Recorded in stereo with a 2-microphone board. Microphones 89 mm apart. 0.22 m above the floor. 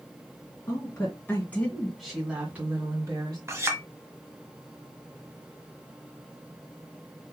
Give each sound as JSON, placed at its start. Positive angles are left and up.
{"t": 0.7, "sound": "a woman speaking", "side_deg": 40, "distance_m": 2.5}
{"t": 3.5, "sound": "a clink", "side_deg": -30, "distance_m": 1.1}